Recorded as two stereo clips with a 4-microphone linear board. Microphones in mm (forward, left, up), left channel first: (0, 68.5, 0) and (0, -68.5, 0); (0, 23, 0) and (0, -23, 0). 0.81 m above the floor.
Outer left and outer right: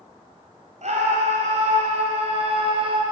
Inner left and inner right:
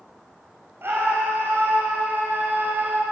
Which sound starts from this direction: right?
A scream, at 0.8 s.